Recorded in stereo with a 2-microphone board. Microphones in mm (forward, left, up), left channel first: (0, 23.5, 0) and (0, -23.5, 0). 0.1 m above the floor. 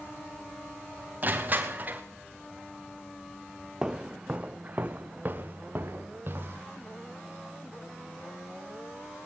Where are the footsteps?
15° right (ahead or behind), 1.3 m; by 6.7 s 45° right (ahead or behind), 3.5 m.